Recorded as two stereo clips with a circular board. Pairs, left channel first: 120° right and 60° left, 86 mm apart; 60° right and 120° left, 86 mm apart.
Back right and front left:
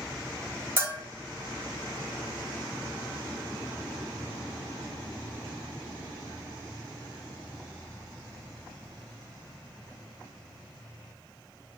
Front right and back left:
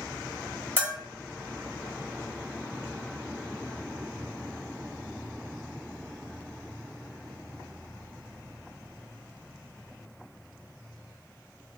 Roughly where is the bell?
Ahead.